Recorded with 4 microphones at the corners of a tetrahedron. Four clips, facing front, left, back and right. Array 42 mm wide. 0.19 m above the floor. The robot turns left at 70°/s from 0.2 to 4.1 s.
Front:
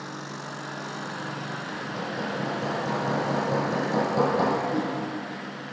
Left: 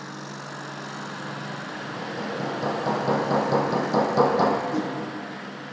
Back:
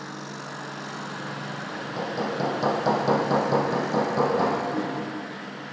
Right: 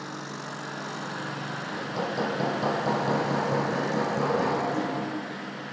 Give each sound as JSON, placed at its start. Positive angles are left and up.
{"t": 1.7, "sound": "hammering", "azimuth_deg": -110, "distance_m": 2.0}
{"t": 4.7, "sound": "a whoosh", "azimuth_deg": 65, "distance_m": 2.5}